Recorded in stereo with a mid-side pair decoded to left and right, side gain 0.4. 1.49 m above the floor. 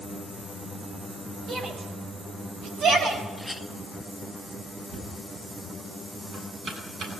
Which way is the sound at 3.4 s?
Straight ahead.